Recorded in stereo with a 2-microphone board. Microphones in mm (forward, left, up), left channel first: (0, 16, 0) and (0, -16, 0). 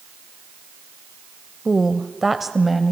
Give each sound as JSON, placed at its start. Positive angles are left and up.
{"t": 1.6, "sound": "a woman speaking", "side_deg": -10, "distance_m": 1.0}